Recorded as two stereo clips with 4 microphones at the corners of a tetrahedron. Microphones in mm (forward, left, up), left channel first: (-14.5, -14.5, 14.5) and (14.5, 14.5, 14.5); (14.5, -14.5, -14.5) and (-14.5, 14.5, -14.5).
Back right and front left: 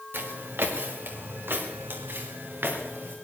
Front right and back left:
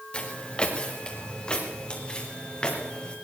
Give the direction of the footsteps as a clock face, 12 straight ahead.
11 o'clock.